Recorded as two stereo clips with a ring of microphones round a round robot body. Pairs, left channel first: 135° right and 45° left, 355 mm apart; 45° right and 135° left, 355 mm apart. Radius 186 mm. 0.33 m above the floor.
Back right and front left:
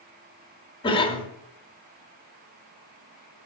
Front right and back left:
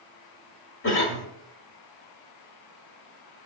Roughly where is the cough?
Right.